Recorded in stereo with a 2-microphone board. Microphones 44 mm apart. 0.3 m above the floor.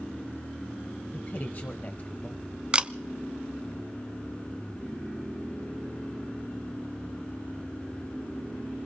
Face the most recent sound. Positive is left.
turn(degrees=-25)  # may be behind; listen again after turning